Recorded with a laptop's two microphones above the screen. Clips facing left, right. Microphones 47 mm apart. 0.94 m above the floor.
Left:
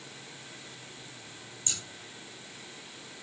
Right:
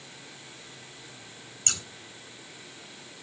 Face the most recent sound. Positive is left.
turn(degrees=-75)  # may be behind; listen again after turning